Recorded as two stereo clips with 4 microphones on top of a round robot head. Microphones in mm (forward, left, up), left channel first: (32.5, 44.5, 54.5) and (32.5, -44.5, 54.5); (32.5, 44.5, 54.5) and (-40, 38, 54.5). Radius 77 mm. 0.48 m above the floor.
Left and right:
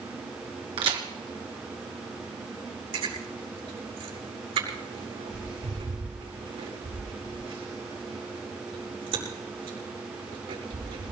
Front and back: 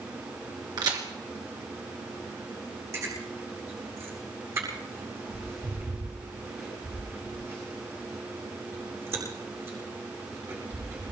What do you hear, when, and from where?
0.8 s a crack: 130° right, 2.5 m
2.9 s chewing: 115° right, 7 m